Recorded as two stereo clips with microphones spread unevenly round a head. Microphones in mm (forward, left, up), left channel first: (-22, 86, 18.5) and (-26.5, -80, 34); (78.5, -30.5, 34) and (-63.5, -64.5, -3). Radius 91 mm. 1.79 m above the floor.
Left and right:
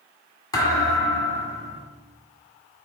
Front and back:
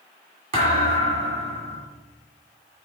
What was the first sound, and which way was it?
A thud, 150° left.